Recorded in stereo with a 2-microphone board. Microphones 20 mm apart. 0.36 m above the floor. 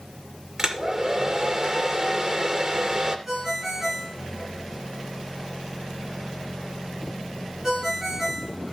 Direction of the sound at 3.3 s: 20° right (ahead or behind).